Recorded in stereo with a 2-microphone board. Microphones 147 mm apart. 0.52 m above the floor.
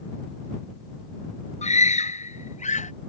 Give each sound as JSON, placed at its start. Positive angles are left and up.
{"t": 1.6, "sound": "a scream", "side_deg": 55}